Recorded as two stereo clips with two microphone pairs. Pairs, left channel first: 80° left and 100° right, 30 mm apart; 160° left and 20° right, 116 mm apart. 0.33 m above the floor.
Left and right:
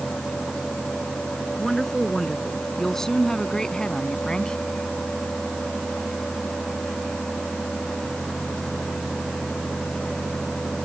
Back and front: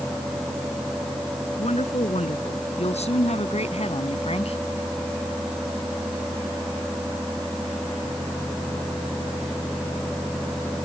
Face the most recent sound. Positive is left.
turn(degrees=140)